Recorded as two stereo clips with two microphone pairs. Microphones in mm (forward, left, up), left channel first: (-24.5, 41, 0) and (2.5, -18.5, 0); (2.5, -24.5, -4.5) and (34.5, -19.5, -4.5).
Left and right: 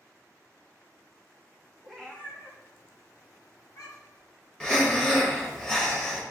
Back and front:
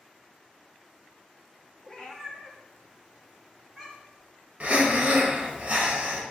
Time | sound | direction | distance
1.8 | a cat meowing | 170° right | 0.7 m
4.6 | breathing | 40° left | 0.8 m